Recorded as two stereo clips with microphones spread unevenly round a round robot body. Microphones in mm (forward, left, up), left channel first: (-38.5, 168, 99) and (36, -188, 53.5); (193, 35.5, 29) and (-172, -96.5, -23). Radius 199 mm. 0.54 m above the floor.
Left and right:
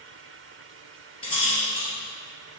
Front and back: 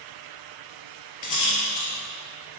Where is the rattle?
25° left, 3 m.